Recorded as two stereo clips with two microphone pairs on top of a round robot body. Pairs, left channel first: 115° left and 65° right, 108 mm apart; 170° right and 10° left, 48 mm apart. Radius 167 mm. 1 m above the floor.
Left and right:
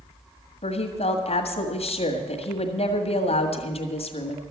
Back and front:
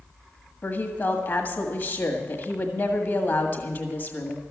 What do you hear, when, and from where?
0.6 s a woman speaking: 140° left, 1.7 m